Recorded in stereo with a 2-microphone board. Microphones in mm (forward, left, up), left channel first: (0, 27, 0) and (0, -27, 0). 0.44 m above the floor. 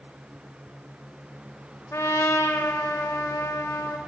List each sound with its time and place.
1.9 s a trumpet: 70° left (ahead or behind), 0.6 m